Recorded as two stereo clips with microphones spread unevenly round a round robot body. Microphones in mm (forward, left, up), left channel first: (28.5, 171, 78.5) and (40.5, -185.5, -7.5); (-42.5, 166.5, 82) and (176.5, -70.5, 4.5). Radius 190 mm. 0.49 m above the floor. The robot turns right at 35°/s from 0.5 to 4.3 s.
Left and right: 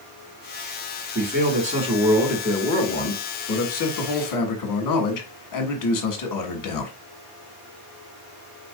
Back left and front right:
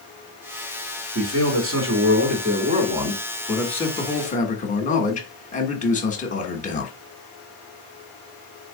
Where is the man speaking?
50° right, 1.6 m; by 6.9 s 60° left, 1.6 m.